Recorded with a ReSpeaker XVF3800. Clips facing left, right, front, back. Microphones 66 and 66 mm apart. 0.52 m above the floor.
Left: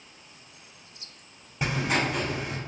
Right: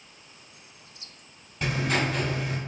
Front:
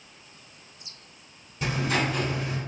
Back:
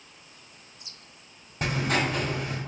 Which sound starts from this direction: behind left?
Writing, at 1.6 s.